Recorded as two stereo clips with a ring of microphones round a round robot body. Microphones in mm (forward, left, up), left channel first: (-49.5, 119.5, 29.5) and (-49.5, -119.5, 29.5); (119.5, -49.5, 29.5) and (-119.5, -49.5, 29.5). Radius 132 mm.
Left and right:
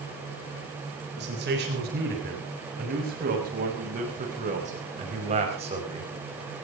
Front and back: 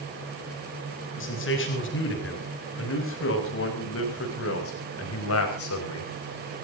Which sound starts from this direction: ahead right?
A man speaking, at 1.2 s.